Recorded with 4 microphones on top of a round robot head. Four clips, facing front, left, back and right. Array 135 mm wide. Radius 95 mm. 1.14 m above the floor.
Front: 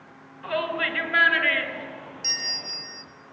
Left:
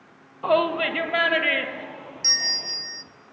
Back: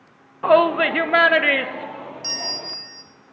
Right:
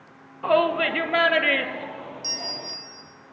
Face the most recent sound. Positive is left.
turn(degrees=120)